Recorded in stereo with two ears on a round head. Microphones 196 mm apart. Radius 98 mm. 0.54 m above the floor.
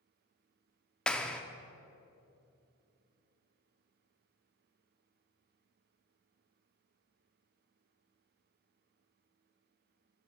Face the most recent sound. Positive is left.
turn(degrees=5)  # may be behind; listen again after turning